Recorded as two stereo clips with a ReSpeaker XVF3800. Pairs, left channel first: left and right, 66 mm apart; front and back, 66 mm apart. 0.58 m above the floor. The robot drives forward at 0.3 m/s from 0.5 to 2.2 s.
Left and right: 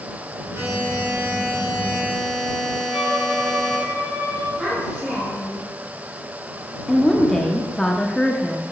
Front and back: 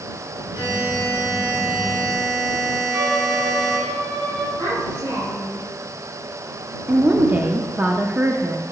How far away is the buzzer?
About 3 m.